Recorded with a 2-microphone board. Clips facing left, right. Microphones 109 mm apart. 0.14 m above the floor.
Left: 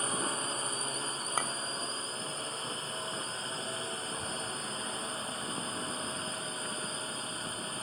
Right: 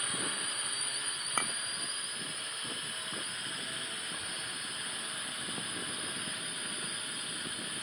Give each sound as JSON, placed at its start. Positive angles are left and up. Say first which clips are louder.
{"t": 0.0, "sound": "a drone", "louder": "left 5 dB", "side_deg": 35}
{"t": 1.4, "sound": "a clink", "louder": "left 1 dB", "side_deg": 10}
{"t": 4.0, "sound": "a child speaking", "louder": "left 6 dB", "side_deg": 45}